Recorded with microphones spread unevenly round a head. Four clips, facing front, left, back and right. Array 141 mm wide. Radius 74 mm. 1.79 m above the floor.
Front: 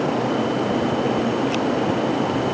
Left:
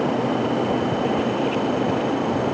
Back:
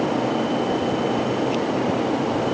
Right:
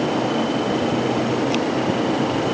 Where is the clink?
No clink in this recording.